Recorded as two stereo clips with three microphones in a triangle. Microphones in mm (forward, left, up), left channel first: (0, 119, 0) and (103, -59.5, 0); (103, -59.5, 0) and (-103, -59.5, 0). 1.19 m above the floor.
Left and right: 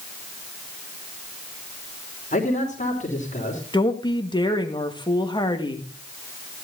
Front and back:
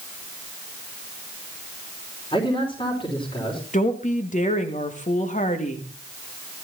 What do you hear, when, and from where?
2.3 s a man speaking: 65° left, 3.5 m
3.7 s a woman speaking: 50° left, 2 m